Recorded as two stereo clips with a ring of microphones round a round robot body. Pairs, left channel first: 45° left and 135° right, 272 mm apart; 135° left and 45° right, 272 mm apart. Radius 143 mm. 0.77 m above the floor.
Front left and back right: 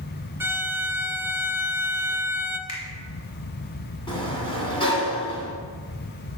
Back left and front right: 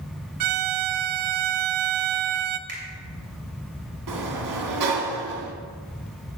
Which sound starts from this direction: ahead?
A finger snap, at 2.7 s.